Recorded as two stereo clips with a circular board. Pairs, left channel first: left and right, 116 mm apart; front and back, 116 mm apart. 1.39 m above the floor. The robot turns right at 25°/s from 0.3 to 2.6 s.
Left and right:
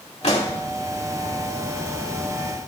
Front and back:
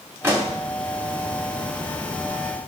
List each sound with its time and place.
0.2 s a pop: 110° left, 1.6 m; by 0.6 s 115° left, 1.6 m